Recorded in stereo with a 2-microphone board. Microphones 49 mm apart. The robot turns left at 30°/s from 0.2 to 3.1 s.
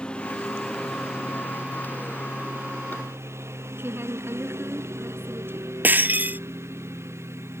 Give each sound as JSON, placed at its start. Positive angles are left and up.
{"t": 0.0, "sound": "a lawn mower", "azimuth_deg": 20}
{"t": 3.8, "sound": "a woman speaking", "side_deg": -55}
{"t": 5.8, "sound": "breaking glass", "side_deg": -40}